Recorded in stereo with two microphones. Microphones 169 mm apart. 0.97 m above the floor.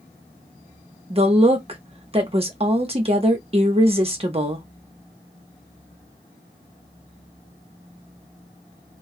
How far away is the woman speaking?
About 1.0 m.